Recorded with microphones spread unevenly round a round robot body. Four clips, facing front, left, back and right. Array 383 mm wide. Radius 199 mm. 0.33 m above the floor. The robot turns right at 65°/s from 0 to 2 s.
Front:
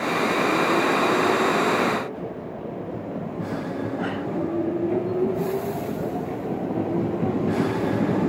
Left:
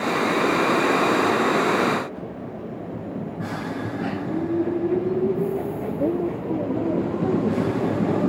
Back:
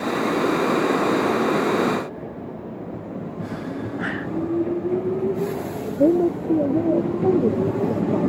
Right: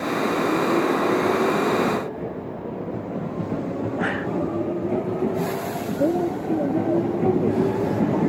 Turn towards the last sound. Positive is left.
turn(degrees=-175)